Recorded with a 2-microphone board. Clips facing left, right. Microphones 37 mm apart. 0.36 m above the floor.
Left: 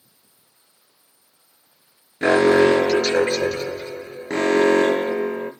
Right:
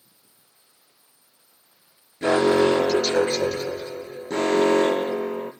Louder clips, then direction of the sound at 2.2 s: Left 4 dB; 70° left (ahead or behind).